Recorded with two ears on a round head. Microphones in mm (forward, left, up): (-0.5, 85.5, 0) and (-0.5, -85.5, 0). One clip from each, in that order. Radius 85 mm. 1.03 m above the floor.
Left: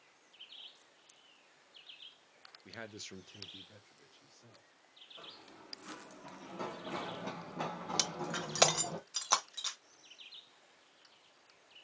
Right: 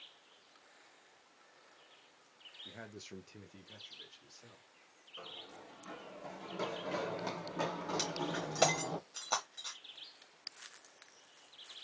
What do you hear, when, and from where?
2.6 s a man speaking: 70° left (ahead or behind), 0.9 m; by 4.7 s 45° right (ahead or behind), 2.5 m
5.2 s running footsteps: 20° right (ahead or behind), 4.5 m; by 9.0 s 25° right (ahead or behind), 2.5 m
8.0 s breaking glass: 50° left (ahead or behind), 1.1 m